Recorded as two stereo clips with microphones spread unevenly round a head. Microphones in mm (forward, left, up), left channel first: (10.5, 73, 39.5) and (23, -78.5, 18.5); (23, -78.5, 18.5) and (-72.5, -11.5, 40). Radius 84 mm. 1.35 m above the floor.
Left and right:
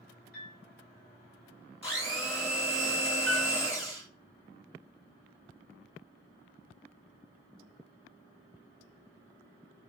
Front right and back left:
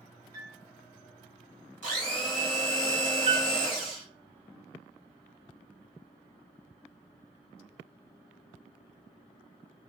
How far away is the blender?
About 1.7 m.